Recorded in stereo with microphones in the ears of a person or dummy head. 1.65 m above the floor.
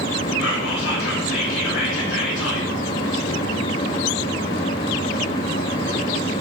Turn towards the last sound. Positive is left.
turn(degrees=80)